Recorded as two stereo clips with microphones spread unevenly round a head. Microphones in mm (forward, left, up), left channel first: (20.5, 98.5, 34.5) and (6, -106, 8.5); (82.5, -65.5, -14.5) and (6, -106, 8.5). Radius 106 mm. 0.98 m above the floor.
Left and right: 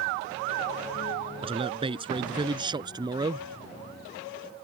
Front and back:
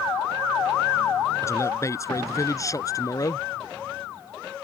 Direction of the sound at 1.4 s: 30° right.